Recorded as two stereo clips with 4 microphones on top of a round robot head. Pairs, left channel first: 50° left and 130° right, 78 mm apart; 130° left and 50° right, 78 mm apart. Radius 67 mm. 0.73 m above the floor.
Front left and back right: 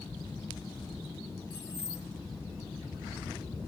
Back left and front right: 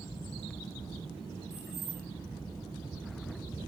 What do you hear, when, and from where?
1.5 s keys jangling: 20° left, 4 m